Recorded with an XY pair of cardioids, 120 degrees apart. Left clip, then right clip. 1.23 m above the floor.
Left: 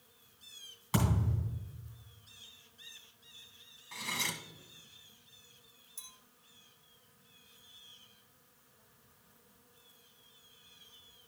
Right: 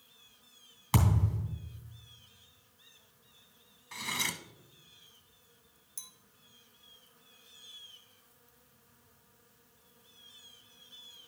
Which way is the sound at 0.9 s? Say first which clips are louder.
Right 2 dB; 55° right.